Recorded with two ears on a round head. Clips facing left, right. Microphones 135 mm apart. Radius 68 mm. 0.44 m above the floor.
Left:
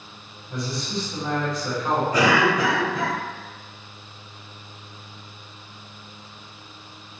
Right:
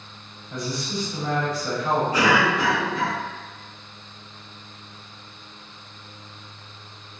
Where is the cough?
40° left (ahead or behind), 2.0 m.